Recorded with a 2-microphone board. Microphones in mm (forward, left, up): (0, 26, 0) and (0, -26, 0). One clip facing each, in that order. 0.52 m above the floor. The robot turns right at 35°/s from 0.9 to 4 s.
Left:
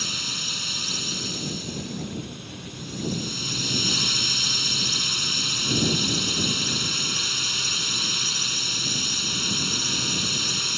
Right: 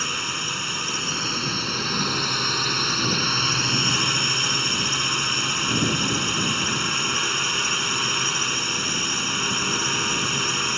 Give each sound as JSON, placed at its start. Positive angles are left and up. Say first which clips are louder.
{"t": 0.0, "sound": "a drone", "louder": "right 5 dB", "azimuth_deg": -145}